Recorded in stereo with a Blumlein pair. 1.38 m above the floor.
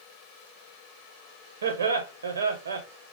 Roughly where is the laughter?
Right.